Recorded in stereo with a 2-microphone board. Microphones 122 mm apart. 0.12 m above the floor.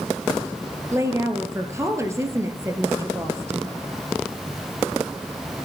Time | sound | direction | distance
0.9 | a woman speaking | 25° right (ahead or behind) | 1.9 m